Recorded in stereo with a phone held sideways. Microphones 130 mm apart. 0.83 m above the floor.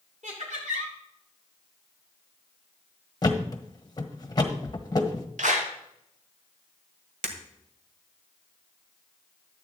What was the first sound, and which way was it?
Laughter, 70° right (ahead or behind).